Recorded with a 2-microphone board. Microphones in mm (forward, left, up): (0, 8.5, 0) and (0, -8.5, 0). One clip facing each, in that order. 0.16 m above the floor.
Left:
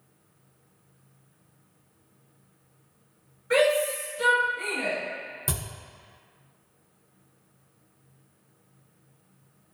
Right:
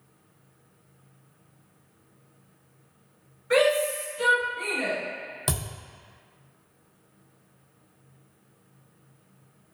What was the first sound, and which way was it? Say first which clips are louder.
A shout: even; 10° right (ahead or behind).